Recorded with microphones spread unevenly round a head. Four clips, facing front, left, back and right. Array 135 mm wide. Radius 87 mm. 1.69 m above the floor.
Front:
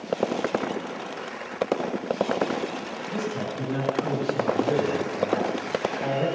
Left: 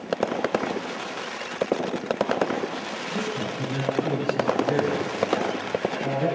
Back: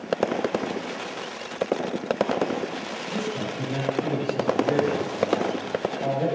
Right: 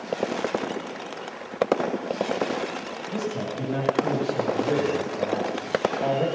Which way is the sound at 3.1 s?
115° right.